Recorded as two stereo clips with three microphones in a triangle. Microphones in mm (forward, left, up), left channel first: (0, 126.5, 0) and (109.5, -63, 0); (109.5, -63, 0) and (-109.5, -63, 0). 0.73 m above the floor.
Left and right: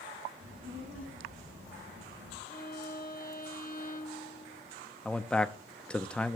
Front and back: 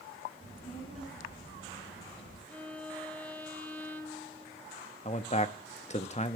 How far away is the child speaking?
About 7.5 m.